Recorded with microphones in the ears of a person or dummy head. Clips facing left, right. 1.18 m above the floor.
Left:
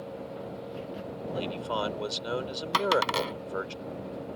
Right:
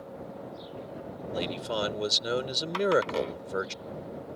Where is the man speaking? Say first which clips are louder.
Right 1 dB; 25° right (ahead or behind).